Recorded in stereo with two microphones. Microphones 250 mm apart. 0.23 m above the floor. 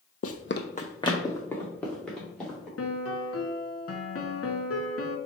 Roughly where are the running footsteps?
Left.